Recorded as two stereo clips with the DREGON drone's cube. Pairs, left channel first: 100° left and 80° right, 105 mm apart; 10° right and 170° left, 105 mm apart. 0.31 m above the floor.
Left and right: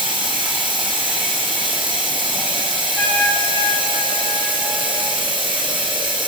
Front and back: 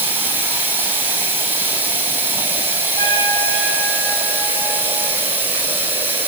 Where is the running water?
120° right, 1.6 m.